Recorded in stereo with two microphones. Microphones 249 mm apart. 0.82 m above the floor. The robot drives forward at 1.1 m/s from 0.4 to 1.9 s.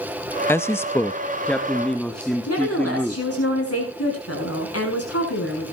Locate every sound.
0.5 s a man speaking: 10° left (ahead or behind), 0.5 m; by 3.2 s 5° left (ahead or behind), 1.5 m
2.5 s a woman speaking: 70° left (ahead or behind), 7 m